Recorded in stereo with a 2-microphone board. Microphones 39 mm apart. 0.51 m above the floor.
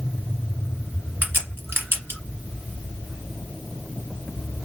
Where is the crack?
75° right (ahead or behind), 1.8 m.